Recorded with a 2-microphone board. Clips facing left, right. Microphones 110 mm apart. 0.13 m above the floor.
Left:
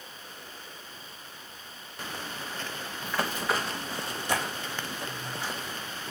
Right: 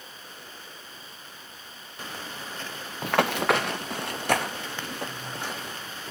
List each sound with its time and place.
3.0 s running footsteps: 80° right, 0.8 m; by 5.8 s 60° right (ahead or behind), 4 m